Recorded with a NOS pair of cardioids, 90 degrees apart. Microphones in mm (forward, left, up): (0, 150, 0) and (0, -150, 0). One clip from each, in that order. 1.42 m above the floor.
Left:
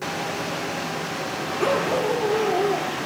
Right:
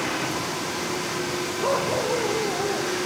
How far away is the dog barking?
About 8 m.